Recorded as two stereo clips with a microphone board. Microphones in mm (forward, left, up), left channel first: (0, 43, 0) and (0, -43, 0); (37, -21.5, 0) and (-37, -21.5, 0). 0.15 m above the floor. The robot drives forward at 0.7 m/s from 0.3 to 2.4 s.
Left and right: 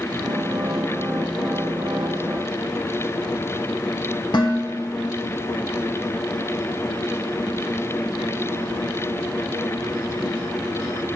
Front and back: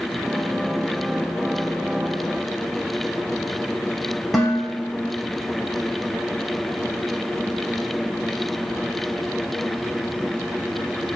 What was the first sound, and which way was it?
Dishes clattering, 90° left.